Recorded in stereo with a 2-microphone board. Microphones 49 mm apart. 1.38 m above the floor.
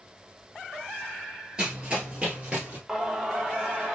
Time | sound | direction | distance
1.6 | running footsteps | 20° right (ahead or behind) | 1.5 m
2.9 | singing | 10° right (ahead or behind) | 0.7 m